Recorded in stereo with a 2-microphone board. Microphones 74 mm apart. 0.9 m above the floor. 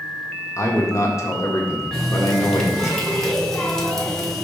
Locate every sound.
0.6 s a man speaking: 45° left (ahead or behind), 1.5 m
1.9 s a running tap: 5° left (ahead or behind), 1.4 m